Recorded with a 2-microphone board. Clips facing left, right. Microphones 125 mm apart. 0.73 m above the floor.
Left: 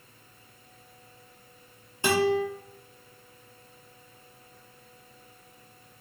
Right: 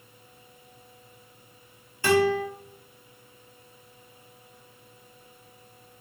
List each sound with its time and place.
2.0 s a guitar: 25° left (ahead or behind), 0.9 m